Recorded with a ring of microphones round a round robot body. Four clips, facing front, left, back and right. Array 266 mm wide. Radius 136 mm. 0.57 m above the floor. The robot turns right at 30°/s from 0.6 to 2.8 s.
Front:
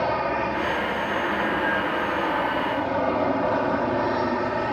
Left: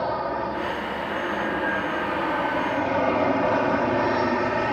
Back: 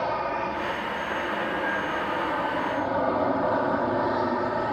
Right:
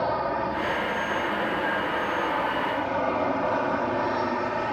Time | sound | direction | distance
0.0 | an aircraft | straight ahead | ?